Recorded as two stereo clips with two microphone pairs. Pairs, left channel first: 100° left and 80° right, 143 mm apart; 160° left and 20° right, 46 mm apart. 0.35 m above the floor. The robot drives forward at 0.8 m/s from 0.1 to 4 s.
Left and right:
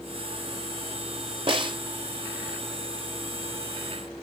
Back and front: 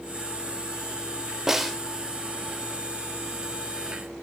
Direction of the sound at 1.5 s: 95° right.